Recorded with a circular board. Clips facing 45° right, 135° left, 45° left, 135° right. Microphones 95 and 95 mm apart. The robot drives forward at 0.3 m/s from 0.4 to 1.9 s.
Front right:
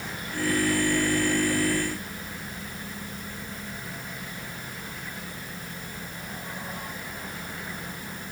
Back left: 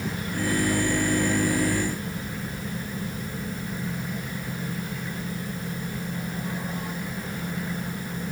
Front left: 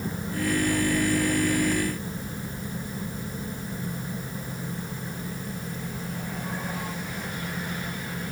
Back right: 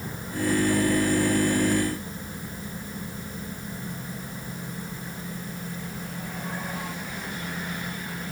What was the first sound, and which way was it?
Only background noise.